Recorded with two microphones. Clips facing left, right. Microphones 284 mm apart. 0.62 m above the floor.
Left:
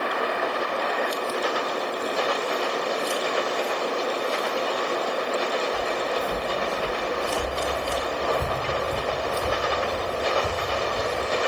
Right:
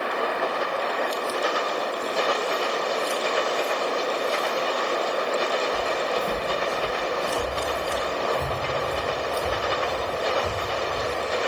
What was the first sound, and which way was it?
Footsteps, 45° right (ahead or behind).